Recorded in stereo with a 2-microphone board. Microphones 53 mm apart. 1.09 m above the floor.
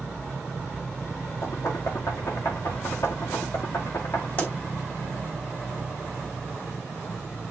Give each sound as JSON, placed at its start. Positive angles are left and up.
{"t": 1.4, "sound": "knocking", "side_deg": 70, "distance_m": 1.6}
{"t": 4.4, "sound": "a pop", "side_deg": 30, "distance_m": 3.5}